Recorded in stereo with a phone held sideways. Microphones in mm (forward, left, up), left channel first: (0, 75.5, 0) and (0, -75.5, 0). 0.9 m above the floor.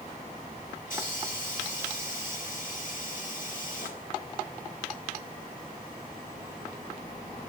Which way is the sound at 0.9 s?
65° left (ahead or behind).